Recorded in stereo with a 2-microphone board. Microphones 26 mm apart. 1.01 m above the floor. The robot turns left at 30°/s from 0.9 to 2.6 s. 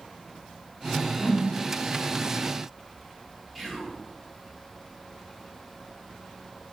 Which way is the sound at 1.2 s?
75° left (ahead or behind).